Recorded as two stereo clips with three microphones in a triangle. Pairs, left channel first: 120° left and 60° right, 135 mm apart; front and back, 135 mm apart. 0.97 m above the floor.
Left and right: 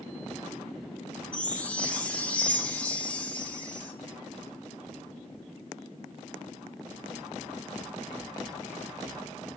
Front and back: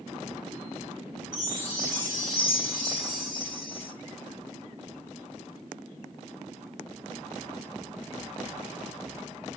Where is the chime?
160° right, 3 m.